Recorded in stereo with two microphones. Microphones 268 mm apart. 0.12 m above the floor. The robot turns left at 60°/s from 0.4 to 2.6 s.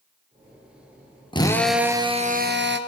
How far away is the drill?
About 2 m.